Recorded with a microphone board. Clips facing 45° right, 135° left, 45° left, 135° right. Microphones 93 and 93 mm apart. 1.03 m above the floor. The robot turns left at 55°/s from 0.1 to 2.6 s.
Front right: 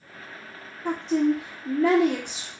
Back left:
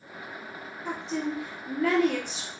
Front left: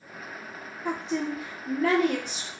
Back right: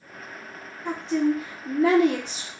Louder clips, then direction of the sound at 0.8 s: Front right 9 dB, back right 6 dB; 30° right.